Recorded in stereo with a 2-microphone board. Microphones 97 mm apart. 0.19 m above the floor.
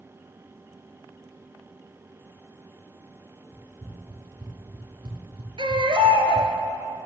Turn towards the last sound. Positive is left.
turn(degrees=-60)  # may be behind; listen again after turning